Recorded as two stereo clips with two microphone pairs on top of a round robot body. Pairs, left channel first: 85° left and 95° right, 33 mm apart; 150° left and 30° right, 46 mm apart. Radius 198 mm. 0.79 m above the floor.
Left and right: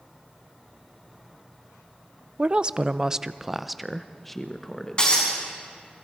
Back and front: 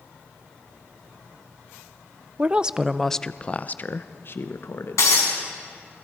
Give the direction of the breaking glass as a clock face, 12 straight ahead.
7 o'clock.